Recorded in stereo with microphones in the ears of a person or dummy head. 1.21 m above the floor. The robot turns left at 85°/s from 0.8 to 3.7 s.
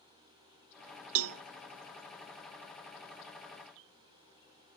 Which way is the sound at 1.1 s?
75° right (ahead or behind).